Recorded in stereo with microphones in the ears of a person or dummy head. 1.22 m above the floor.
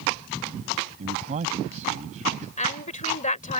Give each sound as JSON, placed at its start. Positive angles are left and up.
{"t": 1.0, "sound": "a man speaking", "side_deg": -45}
{"t": 2.6, "sound": "a woman speaking", "side_deg": 45}